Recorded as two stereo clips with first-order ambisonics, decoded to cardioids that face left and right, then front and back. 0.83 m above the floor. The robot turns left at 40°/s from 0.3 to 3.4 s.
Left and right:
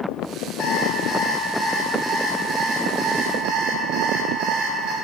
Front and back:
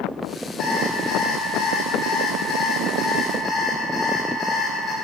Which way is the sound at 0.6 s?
50° left.